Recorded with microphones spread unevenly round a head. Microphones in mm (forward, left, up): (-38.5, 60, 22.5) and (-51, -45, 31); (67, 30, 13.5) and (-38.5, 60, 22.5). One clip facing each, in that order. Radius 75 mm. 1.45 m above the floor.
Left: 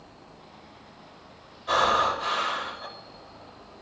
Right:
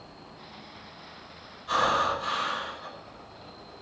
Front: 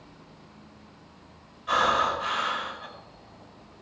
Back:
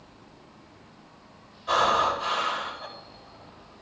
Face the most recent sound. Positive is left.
turn(degrees=105)